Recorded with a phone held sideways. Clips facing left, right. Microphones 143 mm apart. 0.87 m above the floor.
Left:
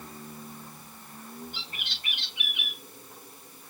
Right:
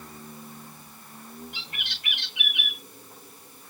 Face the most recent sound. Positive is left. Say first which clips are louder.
# right 1 dB
turn(degrees=-75)  # may be behind; listen again after turning